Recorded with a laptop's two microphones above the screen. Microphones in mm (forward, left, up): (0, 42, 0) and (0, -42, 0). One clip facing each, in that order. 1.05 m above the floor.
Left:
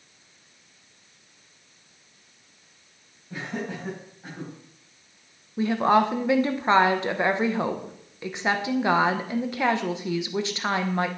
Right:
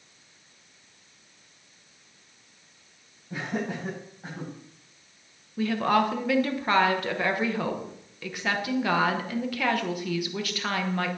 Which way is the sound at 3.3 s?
10° right (ahead or behind).